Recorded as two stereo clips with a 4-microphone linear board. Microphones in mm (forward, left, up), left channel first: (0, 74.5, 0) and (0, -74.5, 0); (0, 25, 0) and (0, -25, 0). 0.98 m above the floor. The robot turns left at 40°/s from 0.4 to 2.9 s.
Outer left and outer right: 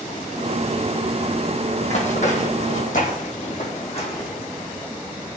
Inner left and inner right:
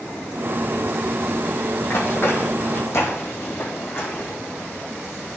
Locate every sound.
1.8 s running footsteps: 50° left (ahead or behind), 2.5 m; by 4.3 s 40° left (ahead or behind), 3.5 m